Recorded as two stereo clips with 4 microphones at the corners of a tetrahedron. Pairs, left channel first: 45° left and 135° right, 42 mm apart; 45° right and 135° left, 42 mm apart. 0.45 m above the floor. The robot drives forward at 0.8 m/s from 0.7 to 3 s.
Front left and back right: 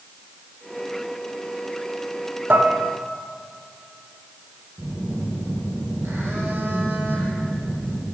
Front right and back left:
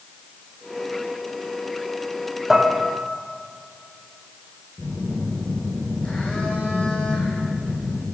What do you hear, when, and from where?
2.5 s dishes clattering: 145° right, 0.8 m; by 2.8 s 155° right, 0.9 m
4.8 s a phone buzzing: 110° right, 3.5 m